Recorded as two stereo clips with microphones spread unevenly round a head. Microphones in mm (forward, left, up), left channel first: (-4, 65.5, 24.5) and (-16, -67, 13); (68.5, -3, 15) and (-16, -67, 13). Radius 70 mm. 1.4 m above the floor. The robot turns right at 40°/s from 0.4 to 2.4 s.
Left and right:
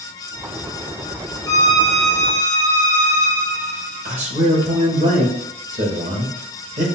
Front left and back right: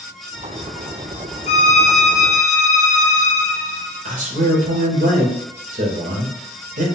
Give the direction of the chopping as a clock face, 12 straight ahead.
No chopping in this recording.